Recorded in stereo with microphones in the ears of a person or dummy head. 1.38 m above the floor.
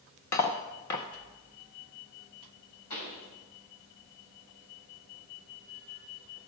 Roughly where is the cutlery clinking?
Centre.